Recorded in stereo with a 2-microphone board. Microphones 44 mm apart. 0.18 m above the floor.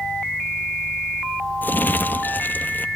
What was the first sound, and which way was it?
Crumpling, 45° left (ahead or behind).